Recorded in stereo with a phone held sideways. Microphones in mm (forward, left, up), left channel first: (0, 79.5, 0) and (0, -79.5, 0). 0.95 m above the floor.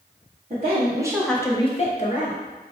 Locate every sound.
0.5 s a woman speaking: 50° right (ahead or behind), 0.9 m; by 2.4 s 60° left (ahead or behind), 1.1 m